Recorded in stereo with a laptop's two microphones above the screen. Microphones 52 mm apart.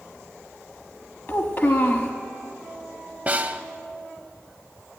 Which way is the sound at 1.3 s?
45° left (ahead or behind).